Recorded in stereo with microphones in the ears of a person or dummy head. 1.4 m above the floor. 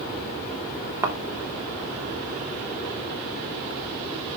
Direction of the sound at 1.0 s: 15° right (ahead or behind).